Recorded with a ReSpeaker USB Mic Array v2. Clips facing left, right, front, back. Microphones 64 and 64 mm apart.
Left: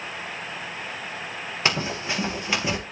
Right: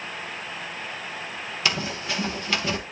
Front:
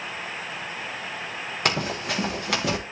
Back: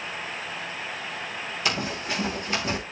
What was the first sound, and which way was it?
Running footsteps, 35° left.